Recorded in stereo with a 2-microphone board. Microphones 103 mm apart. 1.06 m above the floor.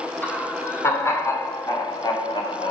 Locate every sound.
0.2 s laughter: 20° left (ahead or behind), 4 m; by 2.7 s 60° left (ahead or behind), 2.5 m